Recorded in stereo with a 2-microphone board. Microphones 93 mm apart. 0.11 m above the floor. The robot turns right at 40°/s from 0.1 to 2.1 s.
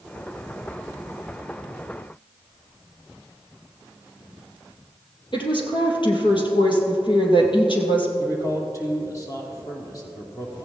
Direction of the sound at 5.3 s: 55° left (ahead or behind).